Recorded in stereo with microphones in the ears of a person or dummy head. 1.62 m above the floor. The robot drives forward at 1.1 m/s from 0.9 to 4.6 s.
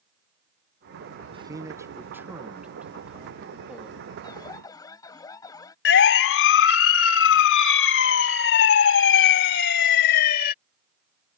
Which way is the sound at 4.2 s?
20° left (ahead or behind).